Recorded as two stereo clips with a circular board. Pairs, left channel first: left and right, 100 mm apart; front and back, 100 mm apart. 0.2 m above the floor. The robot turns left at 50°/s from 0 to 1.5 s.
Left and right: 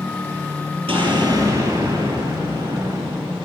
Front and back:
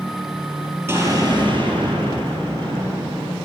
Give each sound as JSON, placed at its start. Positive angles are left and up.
{"t": 0.9, "sound": "an explosion", "azimuth_deg": -115, "distance_m": 5.5}